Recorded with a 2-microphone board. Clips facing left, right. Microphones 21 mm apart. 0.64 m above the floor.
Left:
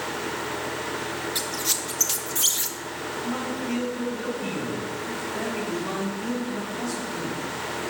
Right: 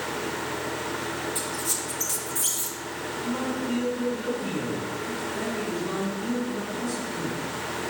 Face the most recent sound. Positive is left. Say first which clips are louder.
# right 1 dB
turn(degrees=50)  # may be behind; listen again after turning